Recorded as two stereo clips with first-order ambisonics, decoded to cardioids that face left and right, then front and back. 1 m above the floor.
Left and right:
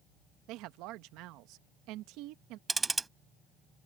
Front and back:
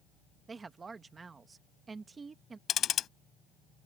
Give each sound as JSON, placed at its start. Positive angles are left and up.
{"t": 0.5, "sound": "a woman speaking", "azimuth_deg": -110}
{"t": 2.7, "sound": "ticking", "azimuth_deg": -25}